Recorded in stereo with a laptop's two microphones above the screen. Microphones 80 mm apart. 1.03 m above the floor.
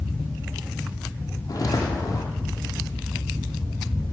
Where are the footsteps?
50° left (ahead or behind), 1.5 m.